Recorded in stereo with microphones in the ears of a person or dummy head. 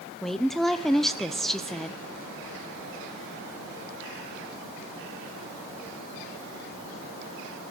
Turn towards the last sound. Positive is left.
turn(degrees=5)  # may be behind; listen again after turning